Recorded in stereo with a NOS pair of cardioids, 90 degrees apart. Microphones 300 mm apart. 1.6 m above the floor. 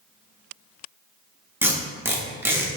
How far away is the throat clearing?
I don't hear throat clearing.